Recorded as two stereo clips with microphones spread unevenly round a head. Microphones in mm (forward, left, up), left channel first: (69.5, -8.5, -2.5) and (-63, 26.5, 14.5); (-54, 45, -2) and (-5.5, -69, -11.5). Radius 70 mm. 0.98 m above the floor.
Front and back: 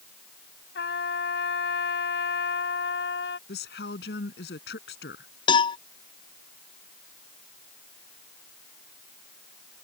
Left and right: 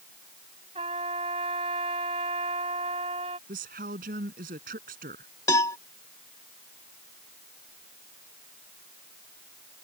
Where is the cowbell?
45° left.